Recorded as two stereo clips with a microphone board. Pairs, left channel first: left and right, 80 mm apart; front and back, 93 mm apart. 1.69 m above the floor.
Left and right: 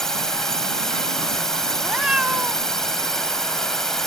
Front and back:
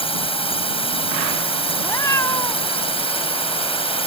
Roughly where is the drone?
Ahead.